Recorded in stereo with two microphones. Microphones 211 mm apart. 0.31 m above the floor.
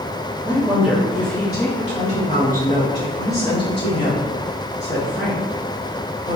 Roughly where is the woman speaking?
Centre.